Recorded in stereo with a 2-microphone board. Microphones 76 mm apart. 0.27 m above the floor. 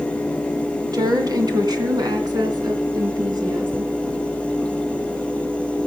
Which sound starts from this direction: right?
A woman speaking, at 0.9 s.